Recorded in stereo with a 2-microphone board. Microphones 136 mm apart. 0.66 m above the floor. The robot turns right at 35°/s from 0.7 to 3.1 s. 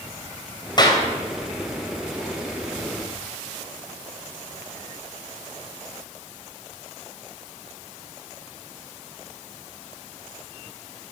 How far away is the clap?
About 3 m.